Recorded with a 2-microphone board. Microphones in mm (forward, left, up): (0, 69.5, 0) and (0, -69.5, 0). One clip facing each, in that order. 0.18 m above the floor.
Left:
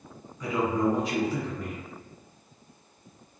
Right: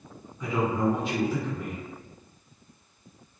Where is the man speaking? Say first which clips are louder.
Even; 10° right (ahead or behind), 1.9 m.